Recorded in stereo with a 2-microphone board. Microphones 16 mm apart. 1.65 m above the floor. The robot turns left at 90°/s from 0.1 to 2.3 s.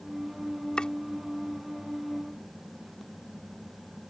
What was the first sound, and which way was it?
Chopping, 65° left (ahead or behind).